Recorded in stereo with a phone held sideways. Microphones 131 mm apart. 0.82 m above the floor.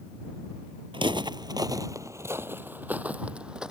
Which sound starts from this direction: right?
Footsteps, at 0.9 s.